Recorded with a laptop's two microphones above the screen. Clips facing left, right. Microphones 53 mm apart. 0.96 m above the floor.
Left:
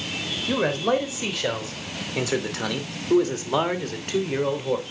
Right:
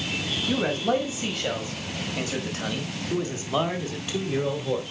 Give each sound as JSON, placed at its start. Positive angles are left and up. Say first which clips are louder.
{"t": 0.5, "sound": "a man speaking", "louder": "left 2 dB", "side_deg": 65, "distance_m": 3.0}